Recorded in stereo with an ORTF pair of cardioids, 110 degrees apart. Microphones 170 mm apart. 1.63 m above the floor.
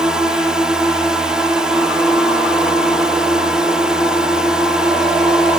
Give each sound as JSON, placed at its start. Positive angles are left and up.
{"t": 0.0, "sound": "a drone", "azimuth_deg": -5}